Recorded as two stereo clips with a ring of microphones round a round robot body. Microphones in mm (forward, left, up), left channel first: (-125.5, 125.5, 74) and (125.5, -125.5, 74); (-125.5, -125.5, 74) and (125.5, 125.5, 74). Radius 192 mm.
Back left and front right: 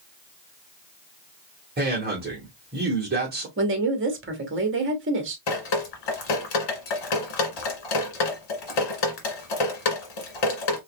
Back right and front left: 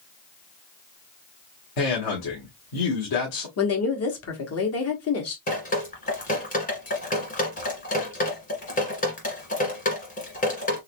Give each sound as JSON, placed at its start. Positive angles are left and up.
{"t": 1.8, "sound": "a man speaking", "azimuth_deg": -110, "distance_m": 1.6}
{"t": 3.6, "sound": "a woman speaking", "azimuth_deg": -95, "distance_m": 1.4}
{"t": 5.5, "sound": "dripping", "azimuth_deg": 155, "distance_m": 1.8}